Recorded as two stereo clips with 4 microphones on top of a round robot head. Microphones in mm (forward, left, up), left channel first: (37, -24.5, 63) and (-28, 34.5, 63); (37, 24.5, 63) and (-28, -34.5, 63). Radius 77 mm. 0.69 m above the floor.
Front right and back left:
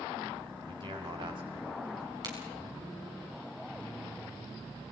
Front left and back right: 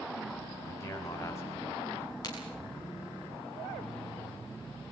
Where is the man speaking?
105° left, 6 m.